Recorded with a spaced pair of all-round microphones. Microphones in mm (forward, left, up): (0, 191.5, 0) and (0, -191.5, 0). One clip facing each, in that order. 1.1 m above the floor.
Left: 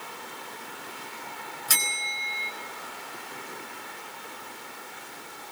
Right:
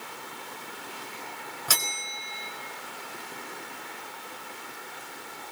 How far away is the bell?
About 3.5 m.